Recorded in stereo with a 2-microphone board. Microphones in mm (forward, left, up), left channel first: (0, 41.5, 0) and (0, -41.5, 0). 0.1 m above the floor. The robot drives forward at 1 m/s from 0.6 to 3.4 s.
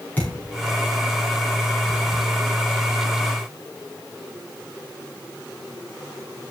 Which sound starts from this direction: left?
A thud, at 0.2 s.